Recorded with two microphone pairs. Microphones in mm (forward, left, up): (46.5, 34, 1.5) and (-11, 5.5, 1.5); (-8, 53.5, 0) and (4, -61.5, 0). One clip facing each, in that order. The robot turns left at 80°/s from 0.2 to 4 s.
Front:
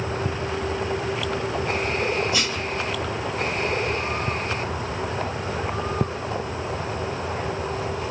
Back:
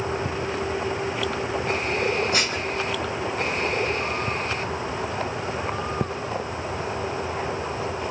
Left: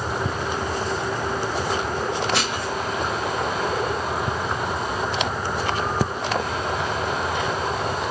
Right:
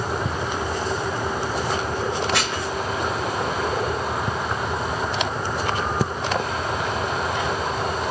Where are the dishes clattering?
170° right, 2.5 m; by 2.7 s 165° left, 2.5 m.